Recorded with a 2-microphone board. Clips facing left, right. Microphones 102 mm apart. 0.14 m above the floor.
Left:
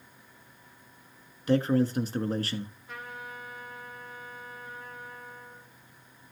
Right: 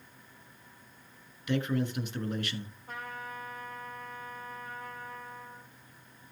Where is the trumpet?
45° right (ahead or behind), 4.5 m.